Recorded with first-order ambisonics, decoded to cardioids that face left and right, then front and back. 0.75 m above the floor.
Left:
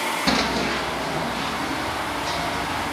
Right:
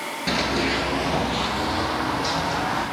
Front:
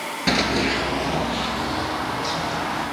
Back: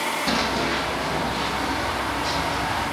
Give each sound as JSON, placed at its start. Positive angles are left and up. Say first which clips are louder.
{"t": 0.3, "sound": "running footsteps", "louder": "right 2 dB, front 6 dB", "azimuth_deg": 30, "distance_m": 0.8}